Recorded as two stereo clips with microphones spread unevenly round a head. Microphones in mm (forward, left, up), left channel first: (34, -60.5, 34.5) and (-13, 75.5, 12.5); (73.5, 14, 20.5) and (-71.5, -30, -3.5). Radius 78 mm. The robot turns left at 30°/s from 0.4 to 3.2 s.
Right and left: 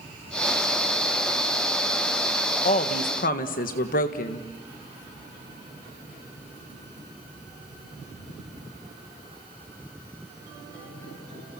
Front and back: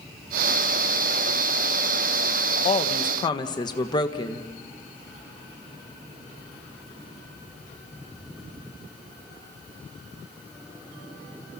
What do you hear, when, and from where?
2.6 s a woman speaking: 30° right, 1.6 m; by 4.5 s 45° right, 1.6 m